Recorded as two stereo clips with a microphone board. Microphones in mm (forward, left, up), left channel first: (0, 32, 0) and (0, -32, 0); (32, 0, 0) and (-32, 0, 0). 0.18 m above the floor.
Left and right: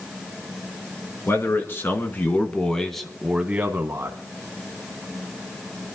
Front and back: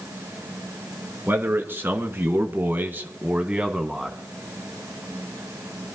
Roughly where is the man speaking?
Behind left.